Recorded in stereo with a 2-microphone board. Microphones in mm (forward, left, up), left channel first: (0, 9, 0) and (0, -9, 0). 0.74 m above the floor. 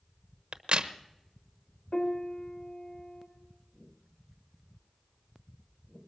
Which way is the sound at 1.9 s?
75° left (ahead or behind).